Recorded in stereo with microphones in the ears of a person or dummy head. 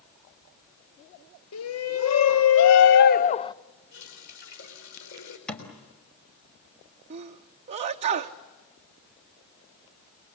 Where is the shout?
80° left, 1.5 m; by 3.5 s 25° left (ahead or behind), 0.7 m.